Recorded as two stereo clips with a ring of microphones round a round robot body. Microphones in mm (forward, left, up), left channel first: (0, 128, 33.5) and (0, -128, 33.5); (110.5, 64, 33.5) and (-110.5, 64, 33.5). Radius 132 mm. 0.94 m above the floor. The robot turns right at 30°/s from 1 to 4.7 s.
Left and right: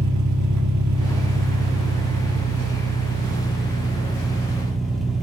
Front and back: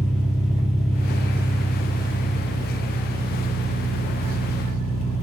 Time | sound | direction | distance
0.0 | an engine running | 110° right | 1.7 m